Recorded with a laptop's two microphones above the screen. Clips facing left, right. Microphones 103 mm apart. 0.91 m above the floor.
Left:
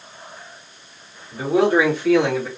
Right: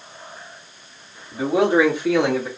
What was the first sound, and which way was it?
A man speaking, 20° right (ahead or behind).